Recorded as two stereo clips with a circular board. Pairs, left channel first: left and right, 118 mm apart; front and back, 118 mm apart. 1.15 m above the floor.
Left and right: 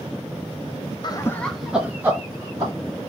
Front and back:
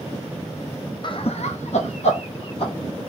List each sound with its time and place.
1.0 s laughter: 45° left, 0.5 m; by 2.7 s 30° right, 1.4 m